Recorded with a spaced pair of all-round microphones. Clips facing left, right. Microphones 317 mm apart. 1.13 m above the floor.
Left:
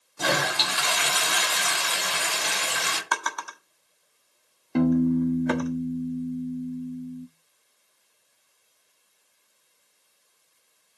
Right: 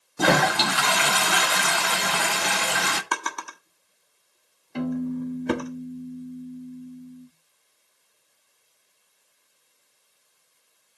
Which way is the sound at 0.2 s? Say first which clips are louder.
Right 7 dB; 70° right (ahead or behind).